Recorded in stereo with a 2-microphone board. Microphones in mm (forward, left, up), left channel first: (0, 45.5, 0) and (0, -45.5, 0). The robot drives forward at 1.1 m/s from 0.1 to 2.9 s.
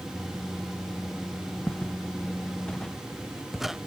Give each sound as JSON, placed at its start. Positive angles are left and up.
{"t": 1.7, "sound": "footsteps", "side_deg": 20}